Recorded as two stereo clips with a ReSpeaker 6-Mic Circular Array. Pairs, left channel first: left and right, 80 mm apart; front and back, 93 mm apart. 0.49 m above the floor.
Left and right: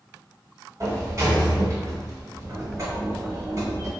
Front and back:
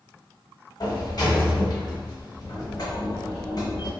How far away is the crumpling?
I don't hear crumpling.